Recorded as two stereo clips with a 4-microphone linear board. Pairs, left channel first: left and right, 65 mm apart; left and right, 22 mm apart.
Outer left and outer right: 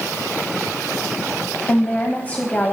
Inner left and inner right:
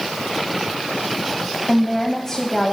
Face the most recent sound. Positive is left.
turn(degrees=25)  # may be behind; listen again after turning